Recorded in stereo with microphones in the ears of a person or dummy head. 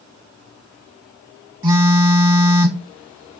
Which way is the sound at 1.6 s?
25° right (ahead or behind).